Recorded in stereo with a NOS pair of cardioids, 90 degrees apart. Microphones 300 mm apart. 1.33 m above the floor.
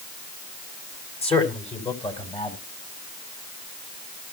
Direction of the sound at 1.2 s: 20° left.